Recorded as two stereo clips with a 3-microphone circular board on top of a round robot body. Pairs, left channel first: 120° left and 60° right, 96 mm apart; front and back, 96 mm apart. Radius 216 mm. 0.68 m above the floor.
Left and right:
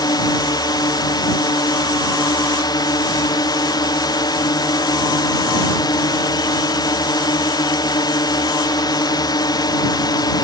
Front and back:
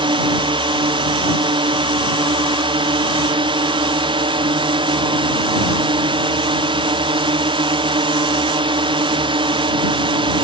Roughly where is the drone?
Behind.